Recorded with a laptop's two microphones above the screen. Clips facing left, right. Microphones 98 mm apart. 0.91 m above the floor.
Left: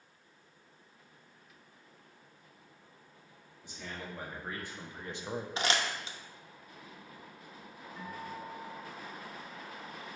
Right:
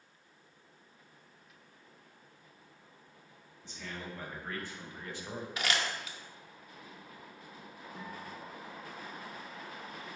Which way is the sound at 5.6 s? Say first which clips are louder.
Left 1 dB; 30° left (ahead or behind).